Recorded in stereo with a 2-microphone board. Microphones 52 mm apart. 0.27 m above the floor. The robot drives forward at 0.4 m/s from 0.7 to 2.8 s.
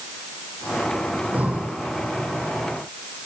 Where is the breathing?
30° right (ahead or behind), 3.5 m; by 1.8 s 25° right (ahead or behind), 3.5 m.